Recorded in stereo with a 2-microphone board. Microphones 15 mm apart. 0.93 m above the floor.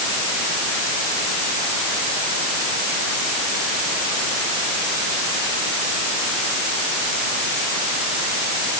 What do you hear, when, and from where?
Only background noise.